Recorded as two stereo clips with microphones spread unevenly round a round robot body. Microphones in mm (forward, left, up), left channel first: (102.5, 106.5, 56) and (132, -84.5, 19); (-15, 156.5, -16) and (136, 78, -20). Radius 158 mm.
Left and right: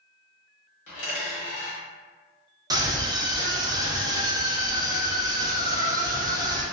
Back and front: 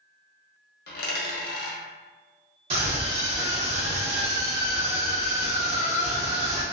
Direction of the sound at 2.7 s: 50° right.